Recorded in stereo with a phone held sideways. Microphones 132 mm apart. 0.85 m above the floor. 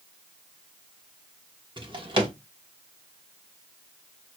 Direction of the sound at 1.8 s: 40° right (ahead or behind).